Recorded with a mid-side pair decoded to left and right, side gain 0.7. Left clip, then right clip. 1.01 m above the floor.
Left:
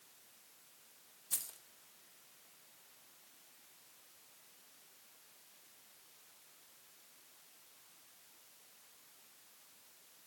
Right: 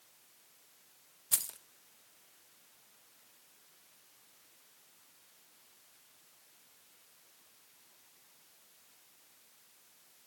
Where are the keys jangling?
30° right, 0.5 m.